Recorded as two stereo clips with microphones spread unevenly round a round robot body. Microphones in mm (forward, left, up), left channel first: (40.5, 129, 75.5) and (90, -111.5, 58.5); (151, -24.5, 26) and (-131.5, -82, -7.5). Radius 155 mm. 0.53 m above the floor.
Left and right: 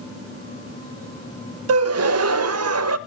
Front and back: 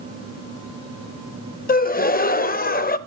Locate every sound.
1.7 s a gasp: 50° right, 0.6 m